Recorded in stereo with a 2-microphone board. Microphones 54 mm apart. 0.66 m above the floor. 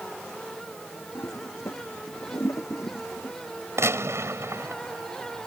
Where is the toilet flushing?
75° left (ahead or behind).